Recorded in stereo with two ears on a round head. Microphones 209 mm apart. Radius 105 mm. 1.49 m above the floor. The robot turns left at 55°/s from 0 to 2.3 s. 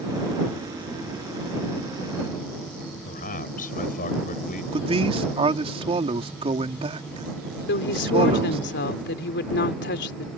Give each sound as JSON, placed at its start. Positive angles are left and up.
{"t": 3.0, "sound": "a man speaking", "side_deg": 35}
{"t": 4.7, "sound": "a man speaking", "side_deg": -25}
{"t": 7.7, "sound": "a woman speaking", "side_deg": 50}